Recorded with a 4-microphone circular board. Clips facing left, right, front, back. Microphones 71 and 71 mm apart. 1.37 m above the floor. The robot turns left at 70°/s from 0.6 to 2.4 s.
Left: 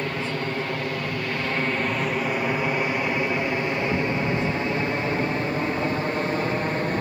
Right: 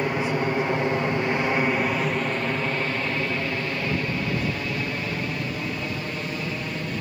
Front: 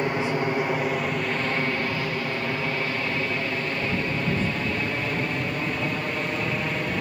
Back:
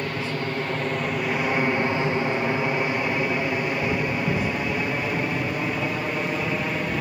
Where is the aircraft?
40° right; by 7.0 s 95° left.